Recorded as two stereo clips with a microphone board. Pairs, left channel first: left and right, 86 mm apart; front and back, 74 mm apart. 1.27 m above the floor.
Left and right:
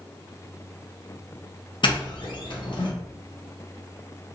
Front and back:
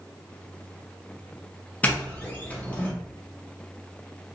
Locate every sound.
1.8 s a doorbell: 70° left, 0.8 m